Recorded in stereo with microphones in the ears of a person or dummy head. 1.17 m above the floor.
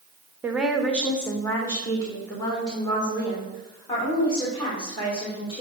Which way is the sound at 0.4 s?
5° right (ahead or behind).